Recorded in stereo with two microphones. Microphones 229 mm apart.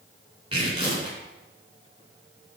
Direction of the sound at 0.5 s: 25° right (ahead or behind).